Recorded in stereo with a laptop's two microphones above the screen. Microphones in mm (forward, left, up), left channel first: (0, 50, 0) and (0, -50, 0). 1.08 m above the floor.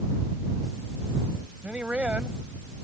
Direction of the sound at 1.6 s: 10° right (ahead or behind).